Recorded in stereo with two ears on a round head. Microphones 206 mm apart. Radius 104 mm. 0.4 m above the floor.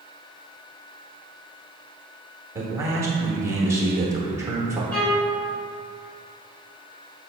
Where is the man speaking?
10° right (ahead or behind), 0.8 m.